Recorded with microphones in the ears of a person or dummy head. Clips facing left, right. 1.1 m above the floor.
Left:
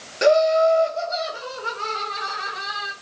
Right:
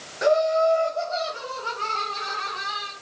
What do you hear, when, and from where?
0.2 s laughter: 35° left (ahead or behind), 0.5 m; by 2.9 s 15° left (ahead or behind), 1.9 m